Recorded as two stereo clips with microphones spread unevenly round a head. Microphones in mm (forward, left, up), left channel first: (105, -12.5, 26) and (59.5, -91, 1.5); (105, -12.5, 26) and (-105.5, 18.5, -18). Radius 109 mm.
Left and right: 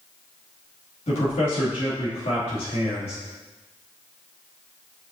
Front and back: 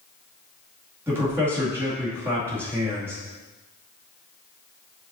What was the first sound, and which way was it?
A man speaking, 90° left.